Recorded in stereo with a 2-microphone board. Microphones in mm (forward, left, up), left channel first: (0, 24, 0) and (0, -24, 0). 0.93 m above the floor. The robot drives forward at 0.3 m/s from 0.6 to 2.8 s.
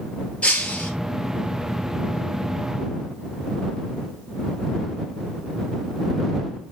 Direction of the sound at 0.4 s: 25° left (ahead or behind).